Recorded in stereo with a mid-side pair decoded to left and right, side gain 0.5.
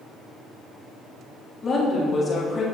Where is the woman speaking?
40° left, 1.7 m.